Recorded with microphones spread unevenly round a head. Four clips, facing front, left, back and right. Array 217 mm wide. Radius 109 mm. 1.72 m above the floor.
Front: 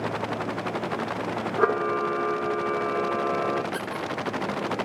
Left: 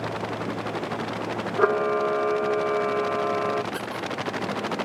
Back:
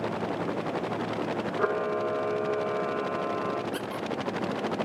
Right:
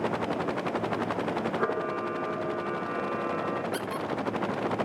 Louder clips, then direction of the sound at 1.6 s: Left 8 dB, front 5 dB; 45° left.